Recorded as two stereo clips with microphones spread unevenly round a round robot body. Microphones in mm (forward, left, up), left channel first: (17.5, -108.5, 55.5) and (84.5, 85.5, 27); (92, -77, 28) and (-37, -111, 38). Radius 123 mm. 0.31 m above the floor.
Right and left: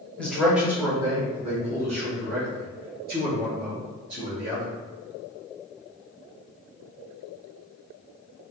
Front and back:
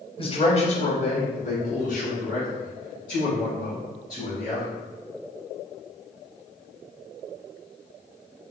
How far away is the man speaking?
About 1.5 m.